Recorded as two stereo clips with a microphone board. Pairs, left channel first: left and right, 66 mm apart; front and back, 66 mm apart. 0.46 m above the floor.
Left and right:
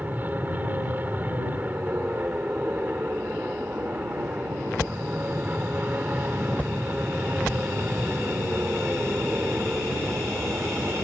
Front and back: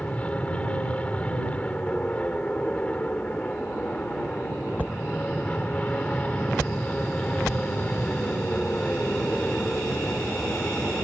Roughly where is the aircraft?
Ahead right.